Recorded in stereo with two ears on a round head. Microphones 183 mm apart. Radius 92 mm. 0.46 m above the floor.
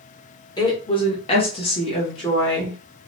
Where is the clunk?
I don't hear a clunk.